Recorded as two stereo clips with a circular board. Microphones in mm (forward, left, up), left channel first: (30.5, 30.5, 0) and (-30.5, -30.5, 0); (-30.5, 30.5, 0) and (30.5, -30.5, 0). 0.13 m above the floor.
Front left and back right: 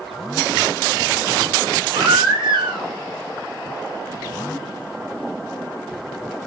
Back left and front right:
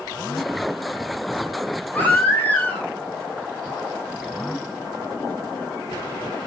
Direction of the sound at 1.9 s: 155° right.